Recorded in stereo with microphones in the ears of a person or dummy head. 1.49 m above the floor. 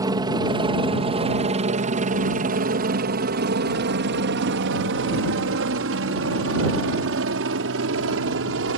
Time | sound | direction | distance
0.0 | a helicopter | 25° right (ahead or behind) | ?